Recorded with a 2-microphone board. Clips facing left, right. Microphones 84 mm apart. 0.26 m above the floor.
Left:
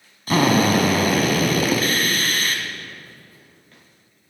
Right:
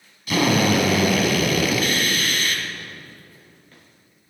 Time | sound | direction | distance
0.3 | a drill | 40° left (ahead or behind) | 1.7 m